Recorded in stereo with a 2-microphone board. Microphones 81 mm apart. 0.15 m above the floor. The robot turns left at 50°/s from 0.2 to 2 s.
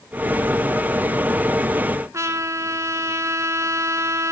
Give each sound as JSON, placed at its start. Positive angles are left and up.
{"t": 2.1, "sound": "a trumpet", "side_deg": -40, "distance_m": 0.9}